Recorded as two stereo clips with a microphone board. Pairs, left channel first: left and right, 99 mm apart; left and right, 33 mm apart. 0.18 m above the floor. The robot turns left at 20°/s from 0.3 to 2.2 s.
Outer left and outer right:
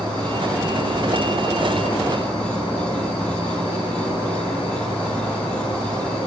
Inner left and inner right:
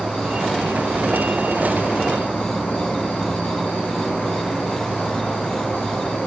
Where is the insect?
125° left, 5.5 m; by 6.3 s 90° left, 5.5 m.